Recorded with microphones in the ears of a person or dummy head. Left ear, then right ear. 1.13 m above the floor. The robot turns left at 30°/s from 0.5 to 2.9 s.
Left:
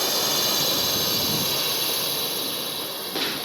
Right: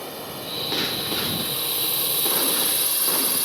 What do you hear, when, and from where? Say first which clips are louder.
0.0 s a drone: left 11 dB; 55° left (ahead or behind); by 3.4 s 25° right (ahead or behind)